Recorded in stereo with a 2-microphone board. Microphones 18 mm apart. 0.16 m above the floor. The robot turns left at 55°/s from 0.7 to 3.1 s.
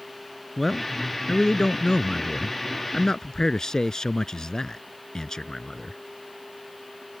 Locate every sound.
0.6 s a man speaking: straight behind; by 6.0 s 45° left